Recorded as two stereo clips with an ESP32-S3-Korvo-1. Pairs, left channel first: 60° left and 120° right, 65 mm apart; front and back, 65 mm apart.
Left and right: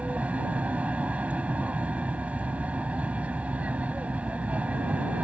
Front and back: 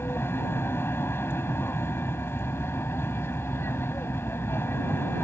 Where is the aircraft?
50° right.